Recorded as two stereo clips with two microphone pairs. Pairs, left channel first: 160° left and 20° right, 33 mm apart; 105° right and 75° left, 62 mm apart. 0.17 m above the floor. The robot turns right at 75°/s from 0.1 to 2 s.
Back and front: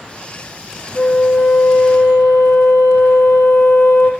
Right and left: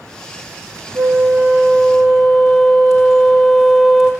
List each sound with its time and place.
0.9 s a flute: 90° left, 1.4 m; by 4.1 s 170° left, 1.4 m